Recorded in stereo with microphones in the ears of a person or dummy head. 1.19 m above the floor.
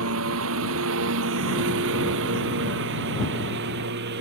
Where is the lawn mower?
80° right; by 4.2 s 60° right (ahead or behind).